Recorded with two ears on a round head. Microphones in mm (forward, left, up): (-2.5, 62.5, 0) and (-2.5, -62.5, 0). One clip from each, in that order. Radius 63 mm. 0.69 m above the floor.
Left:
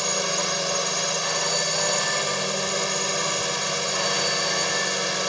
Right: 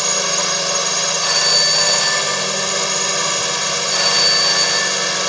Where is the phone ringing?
75° right (ahead or behind).